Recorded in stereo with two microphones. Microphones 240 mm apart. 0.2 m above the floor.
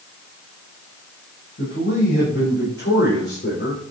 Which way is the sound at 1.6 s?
50° left (ahead or behind).